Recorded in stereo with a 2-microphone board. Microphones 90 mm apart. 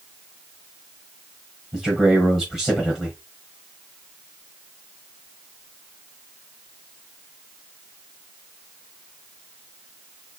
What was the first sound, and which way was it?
A man speaking, 5° right (ahead or behind).